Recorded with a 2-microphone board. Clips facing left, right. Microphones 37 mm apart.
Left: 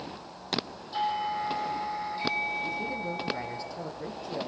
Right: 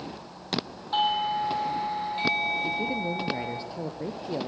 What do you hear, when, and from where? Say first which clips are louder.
0.9 s a doorbell: right 4 dB; 55° right (ahead or behind), 4 m
2.6 s a man speaking: right 4 dB; 25° right (ahead or behind), 2.5 m